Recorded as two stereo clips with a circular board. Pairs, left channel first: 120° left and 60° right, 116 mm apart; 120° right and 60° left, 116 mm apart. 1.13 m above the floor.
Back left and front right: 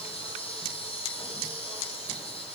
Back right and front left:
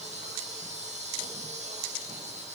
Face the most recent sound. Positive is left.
turn(degrees=80)